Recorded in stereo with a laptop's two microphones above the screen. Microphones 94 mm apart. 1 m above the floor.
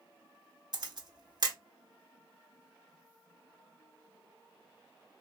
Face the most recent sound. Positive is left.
turn(degrees=-45)  # may be behind; listen again after turning